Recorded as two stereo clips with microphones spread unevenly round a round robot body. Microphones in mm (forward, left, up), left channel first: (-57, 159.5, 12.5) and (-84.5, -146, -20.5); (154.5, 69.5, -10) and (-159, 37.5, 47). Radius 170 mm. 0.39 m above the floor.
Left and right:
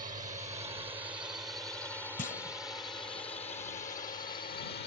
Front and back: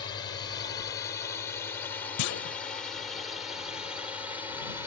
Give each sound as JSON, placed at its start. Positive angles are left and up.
{"t": 0.0, "sound": "a drone", "azimuth_deg": -40}
{"t": 2.2, "sound": "a clunk", "azimuth_deg": 15}